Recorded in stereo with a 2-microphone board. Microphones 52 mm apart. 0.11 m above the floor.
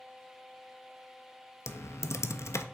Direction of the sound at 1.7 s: 65° left (ahead or behind).